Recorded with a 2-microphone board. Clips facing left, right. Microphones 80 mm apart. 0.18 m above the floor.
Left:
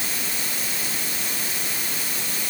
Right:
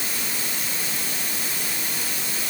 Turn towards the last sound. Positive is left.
No sound to turn to.